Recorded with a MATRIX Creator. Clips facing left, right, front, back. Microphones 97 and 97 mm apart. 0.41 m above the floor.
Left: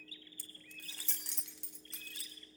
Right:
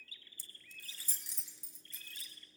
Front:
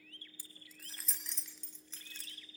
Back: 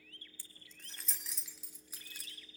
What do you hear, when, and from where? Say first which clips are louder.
0.4 s keys jangling: left 4 dB, front 2 dB; 70° left, 1.7 m; by 2.3 s 105° left, 3.5 m